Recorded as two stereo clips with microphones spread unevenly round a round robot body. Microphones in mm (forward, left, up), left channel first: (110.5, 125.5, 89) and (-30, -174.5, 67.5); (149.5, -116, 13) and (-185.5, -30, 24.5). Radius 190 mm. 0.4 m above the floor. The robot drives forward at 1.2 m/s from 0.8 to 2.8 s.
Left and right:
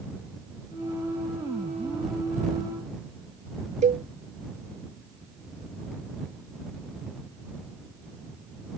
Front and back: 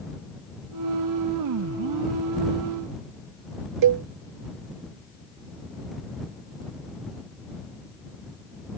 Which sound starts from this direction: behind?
A cowbell, at 3.8 s.